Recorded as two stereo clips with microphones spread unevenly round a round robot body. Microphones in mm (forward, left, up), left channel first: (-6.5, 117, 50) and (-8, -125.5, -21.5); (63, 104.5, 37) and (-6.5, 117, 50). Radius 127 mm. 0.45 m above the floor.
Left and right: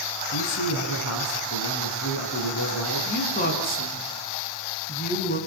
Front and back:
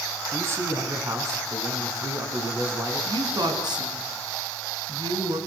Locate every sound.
0.3 s a man speaking: 120° left, 6 m
3.0 s a woman speaking: 150° left, 6.5 m